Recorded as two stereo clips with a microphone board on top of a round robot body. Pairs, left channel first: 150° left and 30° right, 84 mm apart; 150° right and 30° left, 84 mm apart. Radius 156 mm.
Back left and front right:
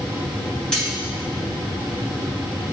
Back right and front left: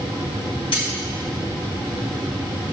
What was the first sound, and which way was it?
Cutlery clinking, 130° right.